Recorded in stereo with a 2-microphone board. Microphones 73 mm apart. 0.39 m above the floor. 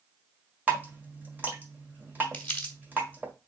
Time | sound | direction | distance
0.7 | dripping | 25° right (ahead or behind) | 1.6 m
2.3 | crumpling | 15° left (ahead or behind) | 1.4 m